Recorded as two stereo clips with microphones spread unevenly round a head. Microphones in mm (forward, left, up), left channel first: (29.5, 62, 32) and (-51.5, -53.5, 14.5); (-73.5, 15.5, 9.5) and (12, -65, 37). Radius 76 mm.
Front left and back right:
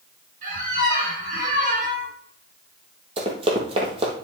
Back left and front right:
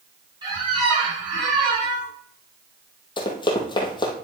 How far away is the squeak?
About 3 m.